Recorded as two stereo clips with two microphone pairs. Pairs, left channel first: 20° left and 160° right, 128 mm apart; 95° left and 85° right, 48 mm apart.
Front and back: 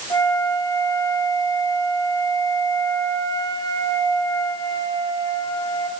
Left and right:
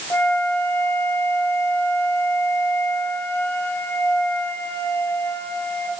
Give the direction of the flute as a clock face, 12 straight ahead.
9 o'clock.